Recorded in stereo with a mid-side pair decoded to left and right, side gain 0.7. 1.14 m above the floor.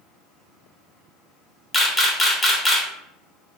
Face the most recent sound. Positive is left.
turn(degrees=15)